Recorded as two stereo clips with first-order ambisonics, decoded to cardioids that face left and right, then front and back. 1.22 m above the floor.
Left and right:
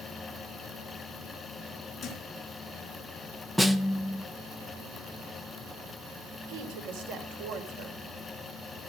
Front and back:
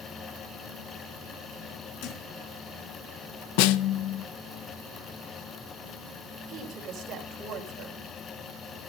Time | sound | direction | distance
2.0 | a thud | 10° left | 3.5 m
3.6 | a snare drum | 5° right | 0.5 m
6.5 | a woman speaking | 115° right | 3.5 m